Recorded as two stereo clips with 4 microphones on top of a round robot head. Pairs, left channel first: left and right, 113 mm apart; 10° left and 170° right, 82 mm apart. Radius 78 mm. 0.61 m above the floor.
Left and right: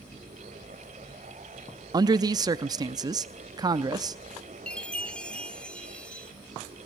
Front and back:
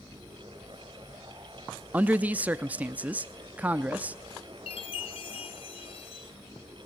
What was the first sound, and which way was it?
A man speaking, 110° right.